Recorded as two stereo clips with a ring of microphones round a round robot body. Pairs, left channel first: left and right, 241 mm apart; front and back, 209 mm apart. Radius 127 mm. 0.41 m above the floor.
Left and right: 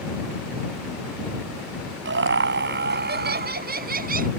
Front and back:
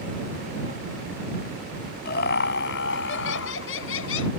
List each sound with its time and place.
2.0 s laughter: 50° right; by 4.3 s 35° right